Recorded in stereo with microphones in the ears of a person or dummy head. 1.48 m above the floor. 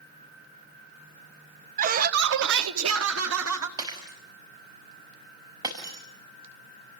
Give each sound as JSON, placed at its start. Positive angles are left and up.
{"t": 1.8, "sound": "laughter", "side_deg": -40, "distance_m": 1.3}
{"t": 3.8, "sound": "breaking glass", "side_deg": -25, "distance_m": 5.5}